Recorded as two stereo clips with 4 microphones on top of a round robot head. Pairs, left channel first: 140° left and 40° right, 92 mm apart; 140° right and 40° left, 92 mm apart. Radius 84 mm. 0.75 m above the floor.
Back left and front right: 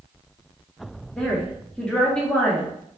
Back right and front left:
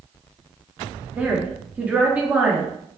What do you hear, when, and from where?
1.2 s a woman speaking: 80° left, 0.7 m